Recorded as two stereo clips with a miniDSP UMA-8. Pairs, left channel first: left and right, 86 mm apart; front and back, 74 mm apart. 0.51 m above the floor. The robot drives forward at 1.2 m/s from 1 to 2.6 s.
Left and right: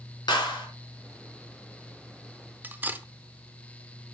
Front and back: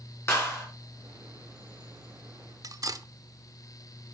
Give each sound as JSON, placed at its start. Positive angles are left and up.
{"t": 0.3, "sound": "a clap", "azimuth_deg": 55, "distance_m": 4.5}
{"t": 2.6, "sound": "cutlery clinking", "azimuth_deg": -155, "distance_m": 0.8}